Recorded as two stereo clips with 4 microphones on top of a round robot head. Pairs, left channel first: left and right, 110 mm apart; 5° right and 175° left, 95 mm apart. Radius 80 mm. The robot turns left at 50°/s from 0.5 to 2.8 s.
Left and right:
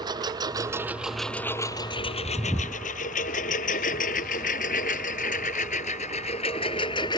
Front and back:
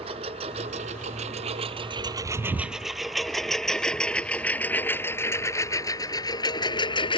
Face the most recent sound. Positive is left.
turn(degrees=25)